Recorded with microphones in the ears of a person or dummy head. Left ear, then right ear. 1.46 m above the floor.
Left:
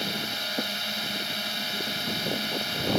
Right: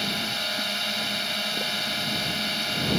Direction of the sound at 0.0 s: 5° right (ahead or behind).